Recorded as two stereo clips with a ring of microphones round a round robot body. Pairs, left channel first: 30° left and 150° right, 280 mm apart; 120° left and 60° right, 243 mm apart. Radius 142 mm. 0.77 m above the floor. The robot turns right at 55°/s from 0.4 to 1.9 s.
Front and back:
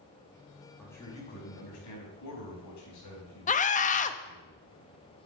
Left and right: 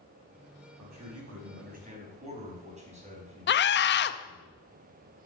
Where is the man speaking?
60° right, 4.5 m; by 4.5 s straight ahead, 4.5 m.